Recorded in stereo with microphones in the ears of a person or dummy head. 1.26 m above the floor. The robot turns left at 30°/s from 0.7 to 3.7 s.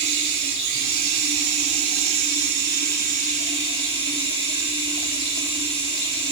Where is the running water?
60° right, 2.5 m; by 6.3 s 150° right, 2.5 m.